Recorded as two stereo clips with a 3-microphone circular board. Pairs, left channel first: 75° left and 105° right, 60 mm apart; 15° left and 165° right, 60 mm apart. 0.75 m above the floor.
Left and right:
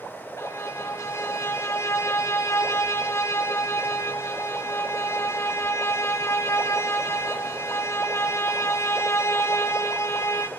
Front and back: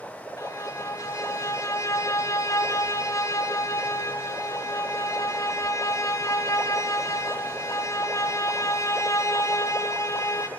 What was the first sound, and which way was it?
A violin, 40° left.